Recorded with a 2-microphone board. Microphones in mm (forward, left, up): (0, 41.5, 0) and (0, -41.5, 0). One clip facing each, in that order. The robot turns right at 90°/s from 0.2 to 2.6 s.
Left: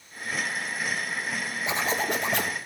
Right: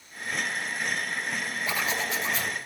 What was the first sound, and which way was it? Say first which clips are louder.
A zipper: left 4 dB; 20° left.